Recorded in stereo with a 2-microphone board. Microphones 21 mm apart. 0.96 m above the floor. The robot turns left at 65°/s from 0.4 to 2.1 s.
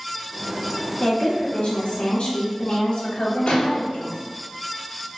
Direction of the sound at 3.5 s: 70° left (ahead or behind).